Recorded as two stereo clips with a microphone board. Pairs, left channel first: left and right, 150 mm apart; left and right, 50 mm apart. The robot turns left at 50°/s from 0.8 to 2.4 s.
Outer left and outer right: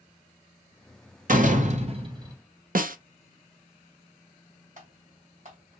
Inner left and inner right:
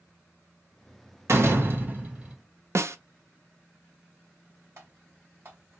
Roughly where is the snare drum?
Right.